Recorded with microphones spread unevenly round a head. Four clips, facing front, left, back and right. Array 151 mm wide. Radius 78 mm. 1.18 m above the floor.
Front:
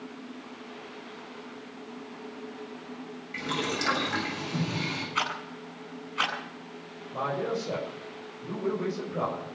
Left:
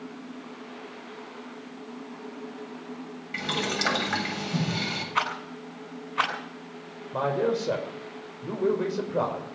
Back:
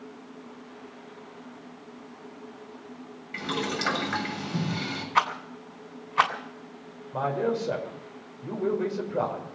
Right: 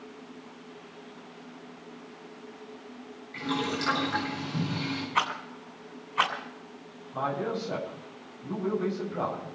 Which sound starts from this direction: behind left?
A man speaking, at 7.1 s.